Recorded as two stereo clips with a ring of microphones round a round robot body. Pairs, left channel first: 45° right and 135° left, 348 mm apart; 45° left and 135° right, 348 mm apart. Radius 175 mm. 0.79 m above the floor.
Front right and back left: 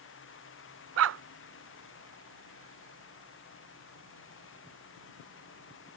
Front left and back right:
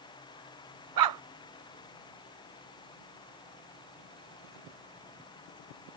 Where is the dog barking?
170° right.